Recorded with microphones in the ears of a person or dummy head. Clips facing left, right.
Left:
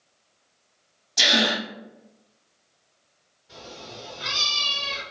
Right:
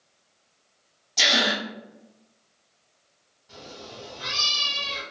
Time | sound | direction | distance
1.2 | a gasp | 5° left (ahead or behind) | 0.9 m
3.5 | a cat meowing | 50° right (ahead or behind) | 1.7 m